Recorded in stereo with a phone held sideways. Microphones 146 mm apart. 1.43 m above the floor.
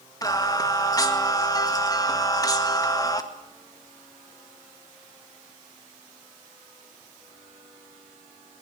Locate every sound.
0.2 s singing: 25° left (ahead or behind), 1.9 m